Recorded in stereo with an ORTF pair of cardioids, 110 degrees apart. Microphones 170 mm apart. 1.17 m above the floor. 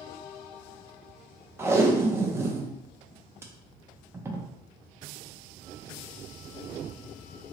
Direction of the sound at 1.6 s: 15° right.